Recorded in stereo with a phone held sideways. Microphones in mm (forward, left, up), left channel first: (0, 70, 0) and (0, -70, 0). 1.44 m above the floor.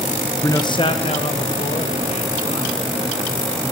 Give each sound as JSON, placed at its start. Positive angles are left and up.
{"t": 0.4, "sound": "a man speaking", "side_deg": 20, "distance_m": 0.7}